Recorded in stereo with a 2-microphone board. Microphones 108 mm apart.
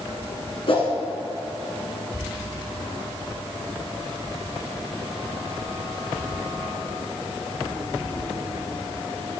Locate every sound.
0.7 s a whoosh: 60° left (ahead or behind), 1.4 m